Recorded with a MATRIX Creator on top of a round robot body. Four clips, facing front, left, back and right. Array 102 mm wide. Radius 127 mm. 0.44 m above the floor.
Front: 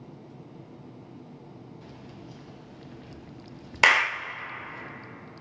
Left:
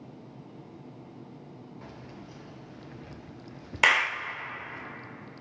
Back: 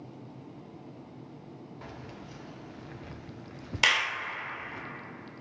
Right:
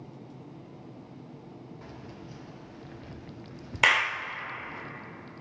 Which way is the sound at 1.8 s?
Straight behind.